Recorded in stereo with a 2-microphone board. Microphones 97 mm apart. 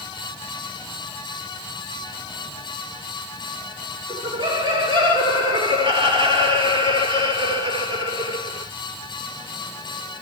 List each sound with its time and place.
4.1 s laughter: 45° right (ahead or behind), 4.5 m